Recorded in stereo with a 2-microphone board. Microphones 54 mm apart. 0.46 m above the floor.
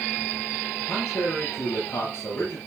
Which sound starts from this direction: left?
A man speaking, at 0.9 s.